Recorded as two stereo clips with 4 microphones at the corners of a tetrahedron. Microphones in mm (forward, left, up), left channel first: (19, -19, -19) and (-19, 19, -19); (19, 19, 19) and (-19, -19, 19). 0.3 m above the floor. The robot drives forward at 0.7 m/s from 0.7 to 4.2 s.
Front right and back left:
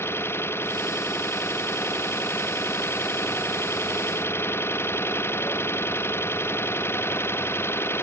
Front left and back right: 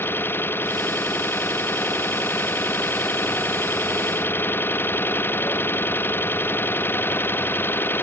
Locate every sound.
0.0 s an engine running: straight ahead; by 8.0 s 5° right